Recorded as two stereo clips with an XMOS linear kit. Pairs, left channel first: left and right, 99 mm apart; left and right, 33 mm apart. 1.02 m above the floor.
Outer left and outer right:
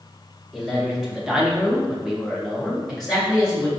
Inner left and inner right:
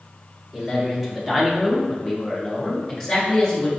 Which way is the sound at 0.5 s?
5° right (ahead or behind).